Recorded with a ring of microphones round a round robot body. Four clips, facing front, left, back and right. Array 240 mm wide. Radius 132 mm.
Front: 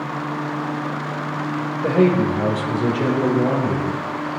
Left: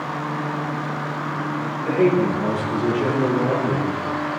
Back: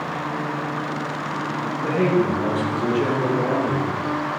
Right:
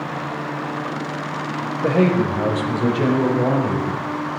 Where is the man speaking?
55° right, 3 m; by 4.0 s 70° right, 4 m.